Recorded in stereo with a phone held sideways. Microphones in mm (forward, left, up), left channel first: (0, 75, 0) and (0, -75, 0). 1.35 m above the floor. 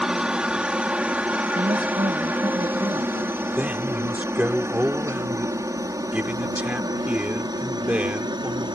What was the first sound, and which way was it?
A helicopter, 5° right (ahead or behind).